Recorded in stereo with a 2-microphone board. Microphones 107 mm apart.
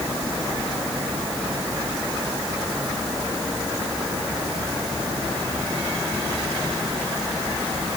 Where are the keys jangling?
No keys jangling in this recording.